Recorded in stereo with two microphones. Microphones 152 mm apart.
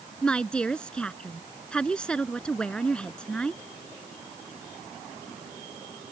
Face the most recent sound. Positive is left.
turn(degrees=5)  # may be behind; listen again after turning